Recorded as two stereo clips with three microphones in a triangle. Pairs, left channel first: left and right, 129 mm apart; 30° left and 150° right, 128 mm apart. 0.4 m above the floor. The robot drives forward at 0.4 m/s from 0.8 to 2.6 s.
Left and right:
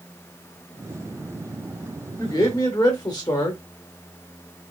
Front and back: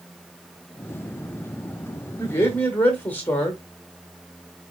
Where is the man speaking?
70° left, 0.9 m; by 3.6 s 90° left, 0.8 m.